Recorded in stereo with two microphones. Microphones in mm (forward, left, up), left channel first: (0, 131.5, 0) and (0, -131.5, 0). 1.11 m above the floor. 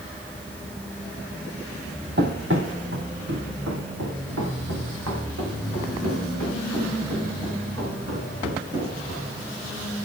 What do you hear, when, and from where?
2.2 s running footsteps: 40° right (ahead or behind), 2 m; by 9.3 s 65° right (ahead or behind), 9.5 m